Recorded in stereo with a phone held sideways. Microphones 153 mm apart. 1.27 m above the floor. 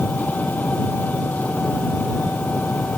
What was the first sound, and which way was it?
An engine running, 10° left (ahead or behind).